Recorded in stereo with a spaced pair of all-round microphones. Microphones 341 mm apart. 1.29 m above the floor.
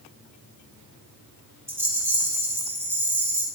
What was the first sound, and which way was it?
A rattle, 5° right (ahead or behind).